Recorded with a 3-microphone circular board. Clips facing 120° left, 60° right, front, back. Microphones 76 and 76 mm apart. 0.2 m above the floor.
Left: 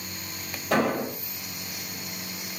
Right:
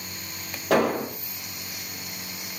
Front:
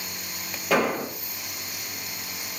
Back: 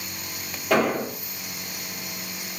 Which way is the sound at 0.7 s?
85° right.